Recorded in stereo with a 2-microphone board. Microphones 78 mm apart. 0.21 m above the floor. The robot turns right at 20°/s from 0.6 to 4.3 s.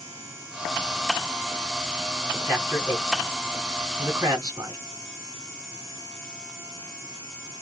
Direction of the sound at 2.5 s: 30° right (ahead or behind).